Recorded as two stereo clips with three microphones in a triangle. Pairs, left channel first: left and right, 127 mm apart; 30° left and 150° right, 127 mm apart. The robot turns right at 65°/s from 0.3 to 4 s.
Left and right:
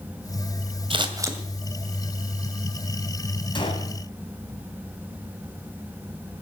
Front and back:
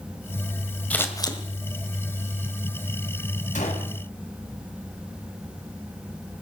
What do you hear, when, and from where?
0.9 s scissors: 50° right, 2 m; by 1.4 s 15° right, 2 m
3.5 s a gunshot: 40° left, 3 m; by 3.9 s 60° left, 3 m